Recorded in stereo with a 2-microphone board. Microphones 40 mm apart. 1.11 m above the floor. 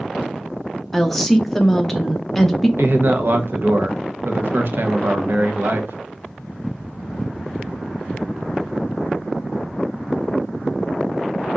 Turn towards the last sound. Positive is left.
turn(degrees=-60)  # may be behind; listen again after turning